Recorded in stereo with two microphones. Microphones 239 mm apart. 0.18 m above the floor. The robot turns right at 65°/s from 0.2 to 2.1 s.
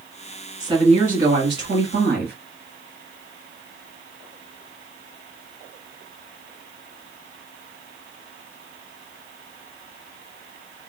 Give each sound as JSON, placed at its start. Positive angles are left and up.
{"t": 0.6, "sound": "a woman speaking", "azimuth_deg": -165, "distance_m": 2.0}